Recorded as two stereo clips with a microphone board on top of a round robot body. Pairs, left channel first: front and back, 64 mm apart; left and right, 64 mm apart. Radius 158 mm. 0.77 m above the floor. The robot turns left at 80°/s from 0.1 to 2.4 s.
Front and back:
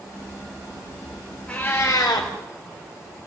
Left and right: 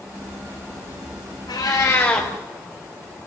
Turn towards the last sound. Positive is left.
turn(degrees=0)